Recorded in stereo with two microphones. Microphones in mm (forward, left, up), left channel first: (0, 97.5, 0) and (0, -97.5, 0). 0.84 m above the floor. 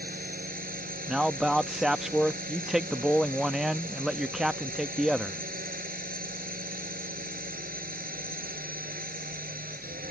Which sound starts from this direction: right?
A drone, at 0.0 s.